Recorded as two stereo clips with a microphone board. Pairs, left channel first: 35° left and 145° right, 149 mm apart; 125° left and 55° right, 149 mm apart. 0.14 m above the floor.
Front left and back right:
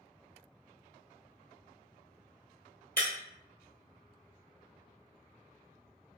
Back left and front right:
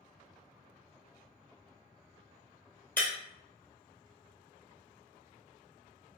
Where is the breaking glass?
50° left, 1.2 m.